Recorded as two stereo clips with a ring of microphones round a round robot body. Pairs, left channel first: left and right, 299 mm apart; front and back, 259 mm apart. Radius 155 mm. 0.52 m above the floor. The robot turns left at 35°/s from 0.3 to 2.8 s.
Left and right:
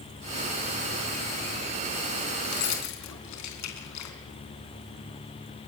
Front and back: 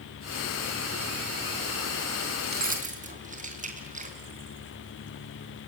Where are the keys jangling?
130° left, 3.5 m; by 4.2 s 120° left, 3.5 m.